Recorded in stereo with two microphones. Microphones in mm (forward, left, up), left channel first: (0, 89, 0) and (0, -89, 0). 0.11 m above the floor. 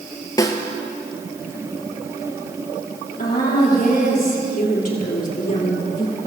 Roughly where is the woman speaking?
Left.